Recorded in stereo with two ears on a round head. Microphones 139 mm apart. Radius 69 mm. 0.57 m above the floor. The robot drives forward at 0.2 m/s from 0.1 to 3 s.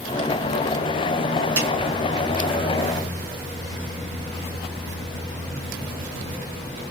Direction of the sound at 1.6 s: 20° right (ahead or behind).